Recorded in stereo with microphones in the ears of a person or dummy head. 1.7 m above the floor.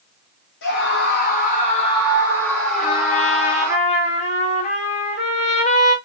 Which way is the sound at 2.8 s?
40° left (ahead or behind).